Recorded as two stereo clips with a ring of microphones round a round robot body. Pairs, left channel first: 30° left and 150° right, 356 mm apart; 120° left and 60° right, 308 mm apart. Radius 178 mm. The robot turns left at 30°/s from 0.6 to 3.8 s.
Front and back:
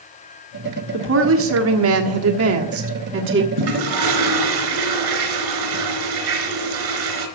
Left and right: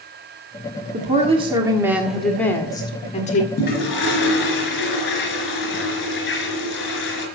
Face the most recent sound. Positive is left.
turn(degrees=180)